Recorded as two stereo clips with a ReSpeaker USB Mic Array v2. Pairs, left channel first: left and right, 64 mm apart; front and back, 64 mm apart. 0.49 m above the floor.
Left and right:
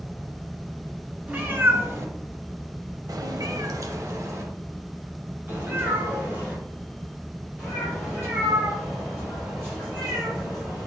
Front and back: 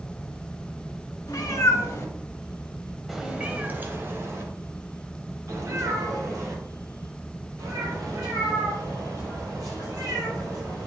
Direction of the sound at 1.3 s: 25° right.